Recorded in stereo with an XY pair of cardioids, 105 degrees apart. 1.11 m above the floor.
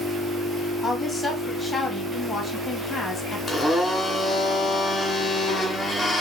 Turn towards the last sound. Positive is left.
turn(degrees=35)